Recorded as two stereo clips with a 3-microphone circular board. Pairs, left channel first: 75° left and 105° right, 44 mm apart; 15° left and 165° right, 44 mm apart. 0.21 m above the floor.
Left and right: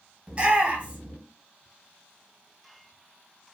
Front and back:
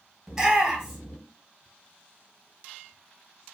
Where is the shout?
100° right, 1.1 m.